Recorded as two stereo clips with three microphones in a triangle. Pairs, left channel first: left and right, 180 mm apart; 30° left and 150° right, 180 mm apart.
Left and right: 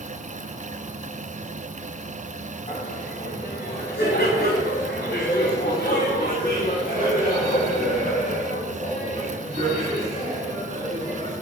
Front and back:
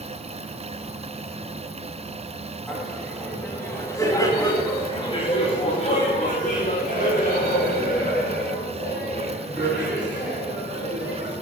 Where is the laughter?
120° left, 3 m; by 11.3 s 40° left, 6 m.